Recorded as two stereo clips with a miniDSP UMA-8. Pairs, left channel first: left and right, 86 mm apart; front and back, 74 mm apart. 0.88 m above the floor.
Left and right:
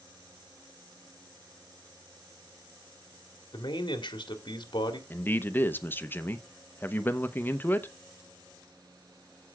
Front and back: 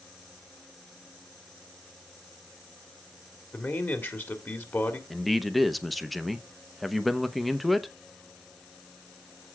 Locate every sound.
3.5 s a man speaking: 60° left, 1.9 m
5.1 s a man speaking: 85° left, 0.8 m